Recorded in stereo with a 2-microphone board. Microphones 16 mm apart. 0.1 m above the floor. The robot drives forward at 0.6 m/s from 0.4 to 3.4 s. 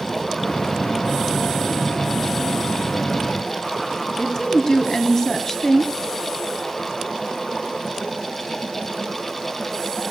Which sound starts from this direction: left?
A woman speaking, at 4.2 s.